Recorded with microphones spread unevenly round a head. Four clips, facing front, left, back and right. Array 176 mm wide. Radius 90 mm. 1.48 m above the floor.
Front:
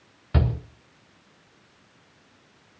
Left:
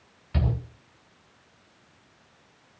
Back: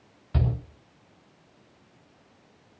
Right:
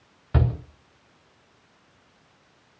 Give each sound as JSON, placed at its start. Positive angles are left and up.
{"t": 0.3, "sound": "a shout", "azimuth_deg": -45, "distance_m": 4.5}